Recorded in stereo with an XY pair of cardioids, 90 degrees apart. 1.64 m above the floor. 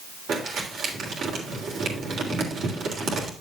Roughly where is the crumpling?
Right.